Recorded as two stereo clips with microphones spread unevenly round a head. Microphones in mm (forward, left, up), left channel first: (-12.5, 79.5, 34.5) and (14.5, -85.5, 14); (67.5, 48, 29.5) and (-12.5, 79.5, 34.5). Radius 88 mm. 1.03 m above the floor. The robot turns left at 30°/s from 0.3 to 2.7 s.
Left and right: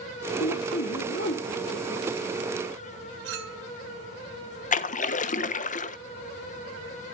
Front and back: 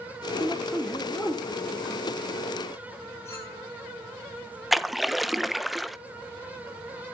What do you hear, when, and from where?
0.4 s a man speaking: 85° left, 3 m; by 2.1 s 35° left, 3 m
3.2 s a clink: 95° right, 2 m
4.7 s a splash: 70° left, 0.9 m